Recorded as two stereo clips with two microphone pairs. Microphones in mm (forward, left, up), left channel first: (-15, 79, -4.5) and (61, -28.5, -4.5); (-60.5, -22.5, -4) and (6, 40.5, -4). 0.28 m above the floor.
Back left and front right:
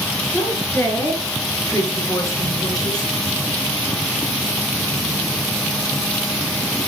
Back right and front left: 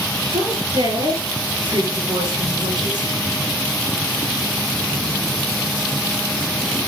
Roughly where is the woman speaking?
Ahead left.